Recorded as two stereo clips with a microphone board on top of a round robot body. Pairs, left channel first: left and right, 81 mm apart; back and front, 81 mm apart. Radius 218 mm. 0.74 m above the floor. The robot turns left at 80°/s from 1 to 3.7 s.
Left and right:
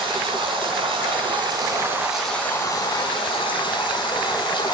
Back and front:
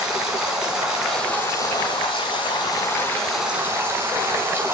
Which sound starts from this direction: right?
Running water, at 0.0 s.